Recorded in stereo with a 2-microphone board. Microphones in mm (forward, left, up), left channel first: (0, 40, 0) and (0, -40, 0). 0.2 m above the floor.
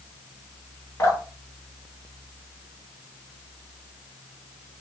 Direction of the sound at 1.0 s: 35° left (ahead or behind).